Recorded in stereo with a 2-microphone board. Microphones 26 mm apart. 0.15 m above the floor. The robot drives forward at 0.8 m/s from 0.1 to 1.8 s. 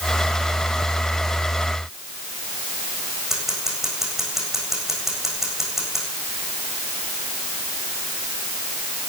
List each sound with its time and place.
3.3 s scissors: 15° right (ahead or behind), 7 m